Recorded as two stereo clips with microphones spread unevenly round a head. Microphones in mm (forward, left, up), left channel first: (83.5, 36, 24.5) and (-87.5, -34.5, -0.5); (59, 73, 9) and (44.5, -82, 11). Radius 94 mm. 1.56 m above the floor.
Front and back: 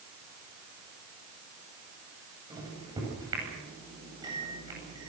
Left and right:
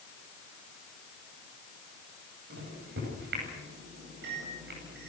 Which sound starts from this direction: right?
A microwave, at 2.5 s.